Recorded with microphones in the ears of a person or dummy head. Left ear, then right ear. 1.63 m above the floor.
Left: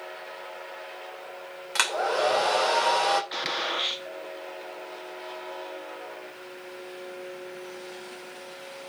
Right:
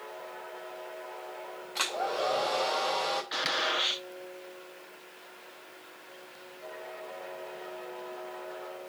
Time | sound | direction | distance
1.8 | a hair dryer | 55° left (ahead or behind) | 3 m
3.3 | a gunshot | 5° left (ahead or behind) | 1.4 m